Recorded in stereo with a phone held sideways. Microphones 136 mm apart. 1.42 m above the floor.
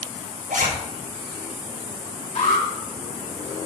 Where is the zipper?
80° right, 5 m.